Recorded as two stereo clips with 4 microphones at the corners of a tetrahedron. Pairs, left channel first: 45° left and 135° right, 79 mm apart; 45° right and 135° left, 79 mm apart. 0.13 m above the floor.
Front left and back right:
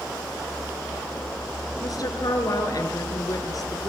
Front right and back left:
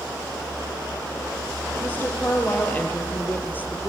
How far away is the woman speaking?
About 3 m.